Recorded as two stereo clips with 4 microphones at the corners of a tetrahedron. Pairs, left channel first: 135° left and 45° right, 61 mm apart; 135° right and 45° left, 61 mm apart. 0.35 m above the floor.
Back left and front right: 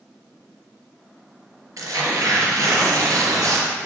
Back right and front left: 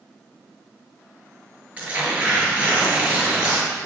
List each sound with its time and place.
1.8 s tearing paper: 20° right, 5.5 m